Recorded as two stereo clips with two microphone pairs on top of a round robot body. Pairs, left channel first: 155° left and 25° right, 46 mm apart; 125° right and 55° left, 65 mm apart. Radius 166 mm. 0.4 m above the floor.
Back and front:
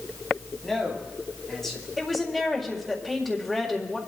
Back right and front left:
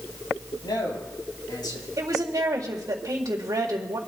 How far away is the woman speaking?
About 2 m.